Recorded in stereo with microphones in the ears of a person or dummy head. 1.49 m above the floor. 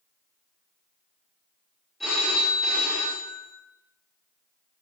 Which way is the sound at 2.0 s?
Centre (ahead or behind).